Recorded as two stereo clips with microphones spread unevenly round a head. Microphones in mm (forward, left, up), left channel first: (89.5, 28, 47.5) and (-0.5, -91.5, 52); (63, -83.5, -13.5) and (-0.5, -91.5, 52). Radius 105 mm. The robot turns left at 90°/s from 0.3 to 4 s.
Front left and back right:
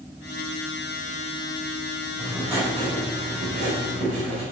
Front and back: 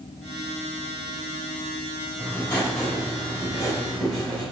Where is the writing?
20° right, 3.5 m; by 4.4 s 175° left, 3.5 m.